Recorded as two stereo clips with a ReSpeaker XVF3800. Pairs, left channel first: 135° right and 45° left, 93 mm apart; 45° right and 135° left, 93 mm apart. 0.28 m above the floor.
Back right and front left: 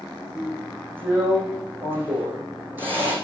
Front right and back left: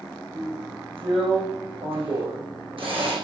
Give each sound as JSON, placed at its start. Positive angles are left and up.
{"t": 0.3, "sound": "a drill", "azimuth_deg": 110, "distance_m": 5.5}